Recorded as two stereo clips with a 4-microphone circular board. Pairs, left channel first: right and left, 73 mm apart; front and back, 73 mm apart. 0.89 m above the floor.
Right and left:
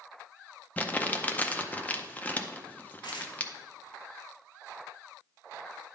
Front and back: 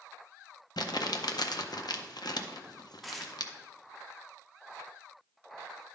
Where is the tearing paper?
90° right, 0.9 m.